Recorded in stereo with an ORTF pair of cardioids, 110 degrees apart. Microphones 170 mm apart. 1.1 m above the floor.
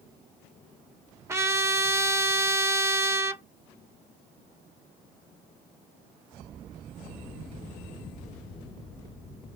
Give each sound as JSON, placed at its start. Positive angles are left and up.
{"t": 1.3, "sound": "a trumpet", "azimuth_deg": -15, "distance_m": 0.6}